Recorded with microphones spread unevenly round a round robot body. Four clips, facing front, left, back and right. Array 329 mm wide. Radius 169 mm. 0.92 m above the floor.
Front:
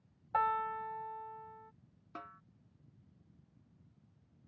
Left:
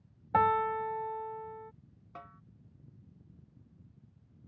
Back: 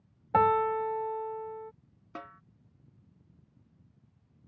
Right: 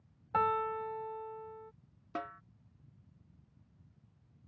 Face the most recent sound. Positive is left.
turn(degrees=-105)